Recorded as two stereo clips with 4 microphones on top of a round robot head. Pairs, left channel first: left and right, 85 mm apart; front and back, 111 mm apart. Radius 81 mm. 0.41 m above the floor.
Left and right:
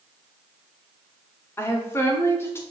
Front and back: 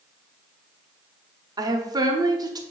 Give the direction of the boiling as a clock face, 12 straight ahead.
I don't hear boiling.